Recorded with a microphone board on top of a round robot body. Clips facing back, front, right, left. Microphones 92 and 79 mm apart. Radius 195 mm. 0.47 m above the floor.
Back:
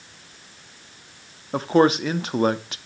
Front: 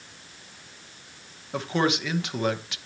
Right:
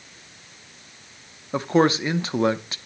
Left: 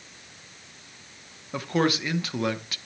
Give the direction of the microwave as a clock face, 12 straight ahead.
No microwave in this recording.